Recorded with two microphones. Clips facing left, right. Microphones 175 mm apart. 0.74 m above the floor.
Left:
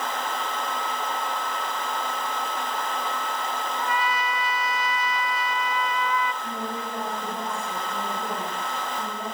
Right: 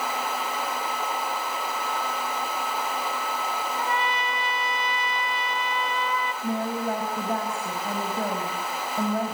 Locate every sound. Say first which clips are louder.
3.8 s a trumpet: left 1 dB; 25° right (ahead or behind), 1.3 m
6.4 s a woman speaking: right 6 dB; 75° right (ahead or behind), 4.5 m